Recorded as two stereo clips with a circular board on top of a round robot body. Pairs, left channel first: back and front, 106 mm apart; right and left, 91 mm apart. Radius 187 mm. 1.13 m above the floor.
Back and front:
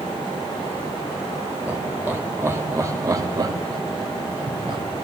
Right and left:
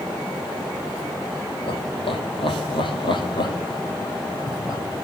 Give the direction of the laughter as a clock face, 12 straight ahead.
3 o'clock.